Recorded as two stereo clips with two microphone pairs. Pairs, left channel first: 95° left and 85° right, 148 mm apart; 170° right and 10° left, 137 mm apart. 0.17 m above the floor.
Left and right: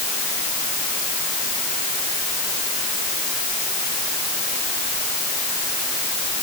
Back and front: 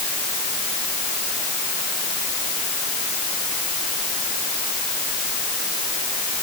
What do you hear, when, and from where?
Only background noise.